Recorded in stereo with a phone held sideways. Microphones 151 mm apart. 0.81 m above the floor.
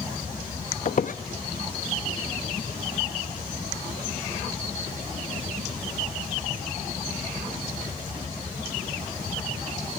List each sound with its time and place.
0.8 s a squeak: 60° left (ahead or behind), 0.5 m